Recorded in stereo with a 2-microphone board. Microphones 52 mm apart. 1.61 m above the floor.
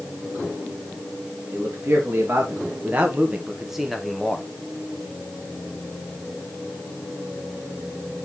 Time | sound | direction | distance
1.5 | a man speaking | 50° right (ahead or behind) | 1.8 m